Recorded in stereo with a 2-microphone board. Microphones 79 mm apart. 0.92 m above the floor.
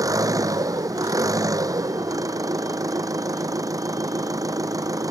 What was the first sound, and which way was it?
An engine running, 45° right (ahead or behind).